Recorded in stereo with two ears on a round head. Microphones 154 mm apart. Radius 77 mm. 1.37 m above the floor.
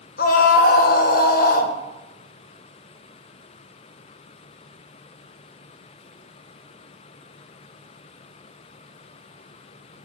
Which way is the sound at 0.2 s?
55° left (ahead or behind).